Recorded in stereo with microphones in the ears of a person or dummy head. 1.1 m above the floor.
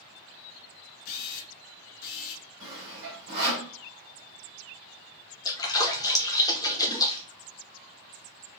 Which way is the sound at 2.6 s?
75° right (ahead or behind).